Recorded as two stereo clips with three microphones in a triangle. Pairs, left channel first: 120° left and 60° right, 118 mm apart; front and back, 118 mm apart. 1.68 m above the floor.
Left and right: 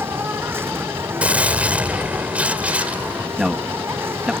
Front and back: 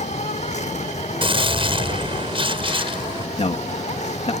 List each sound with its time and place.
0.0 s an insect: 10° left
1.2 s a gunshot: 140° right
3.4 s a man speaking: 25° left